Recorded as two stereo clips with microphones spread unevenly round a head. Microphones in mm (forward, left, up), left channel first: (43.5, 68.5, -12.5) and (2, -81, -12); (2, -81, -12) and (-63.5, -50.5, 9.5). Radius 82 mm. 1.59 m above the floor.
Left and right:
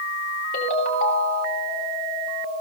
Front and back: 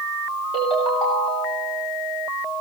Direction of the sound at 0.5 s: 40° left.